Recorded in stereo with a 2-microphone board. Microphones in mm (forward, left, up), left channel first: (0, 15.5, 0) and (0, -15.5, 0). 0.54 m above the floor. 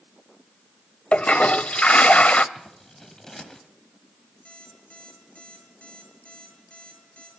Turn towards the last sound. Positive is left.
turn(degrees=45)  # may be behind; listen again after turning